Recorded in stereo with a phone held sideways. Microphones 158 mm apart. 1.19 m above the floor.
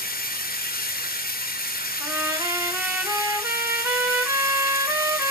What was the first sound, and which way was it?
Running water, 70° left (ahead or behind).